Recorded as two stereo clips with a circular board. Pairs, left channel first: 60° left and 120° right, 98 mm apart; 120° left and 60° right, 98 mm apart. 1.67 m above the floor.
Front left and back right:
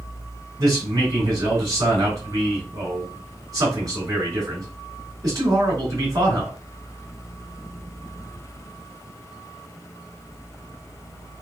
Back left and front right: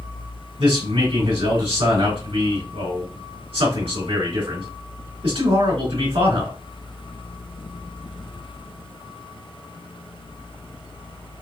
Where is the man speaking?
70° right, 2.5 m.